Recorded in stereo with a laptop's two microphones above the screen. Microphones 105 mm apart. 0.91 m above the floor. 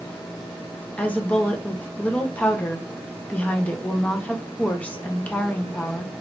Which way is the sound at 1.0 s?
15° left (ahead or behind).